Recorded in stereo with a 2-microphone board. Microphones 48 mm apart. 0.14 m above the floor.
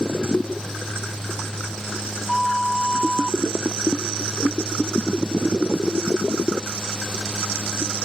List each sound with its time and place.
2.3 s a flute: 5° left (ahead or behind), 1.3 m